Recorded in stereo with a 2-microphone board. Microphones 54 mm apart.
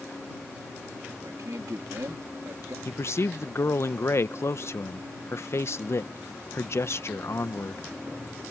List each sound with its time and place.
1.2 s a man speaking: 85° right
2.9 s a man speaking: 55° left (ahead or behind)